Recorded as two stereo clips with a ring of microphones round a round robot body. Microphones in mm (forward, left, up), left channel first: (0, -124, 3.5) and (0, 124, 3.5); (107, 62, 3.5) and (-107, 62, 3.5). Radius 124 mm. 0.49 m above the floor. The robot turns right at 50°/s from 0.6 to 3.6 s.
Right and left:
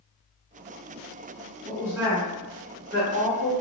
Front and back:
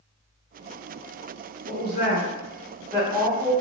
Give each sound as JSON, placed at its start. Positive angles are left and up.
{"t": 1.7, "sound": "a woman speaking", "azimuth_deg": 0, "distance_m": 1.4}